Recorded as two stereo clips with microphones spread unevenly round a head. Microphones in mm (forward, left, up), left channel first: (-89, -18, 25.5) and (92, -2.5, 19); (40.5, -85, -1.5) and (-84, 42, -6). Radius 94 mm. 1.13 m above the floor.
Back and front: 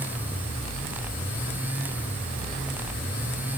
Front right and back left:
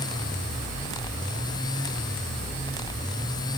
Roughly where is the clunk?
I don't hear a clunk.